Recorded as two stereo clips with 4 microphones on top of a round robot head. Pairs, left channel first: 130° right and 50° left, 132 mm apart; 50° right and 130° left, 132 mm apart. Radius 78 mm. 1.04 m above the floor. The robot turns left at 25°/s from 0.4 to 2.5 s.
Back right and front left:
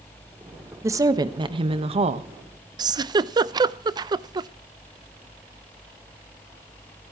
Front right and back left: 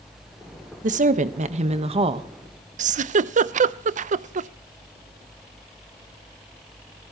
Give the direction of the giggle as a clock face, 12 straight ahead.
8 o'clock.